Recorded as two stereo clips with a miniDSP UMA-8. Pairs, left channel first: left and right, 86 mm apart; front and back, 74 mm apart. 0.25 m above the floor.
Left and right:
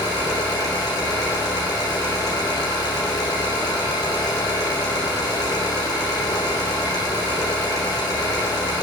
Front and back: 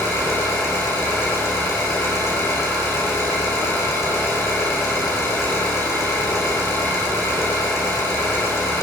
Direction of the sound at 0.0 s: 50° left.